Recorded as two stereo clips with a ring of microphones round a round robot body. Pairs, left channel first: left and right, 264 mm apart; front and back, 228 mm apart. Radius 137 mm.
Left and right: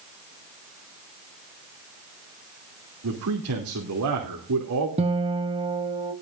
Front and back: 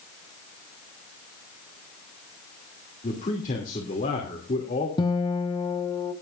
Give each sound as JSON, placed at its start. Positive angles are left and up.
{"t": 3.0, "sound": "a man speaking", "azimuth_deg": -60, "distance_m": 2.5}
{"t": 5.0, "sound": "a guitar", "azimuth_deg": -50, "distance_m": 0.7}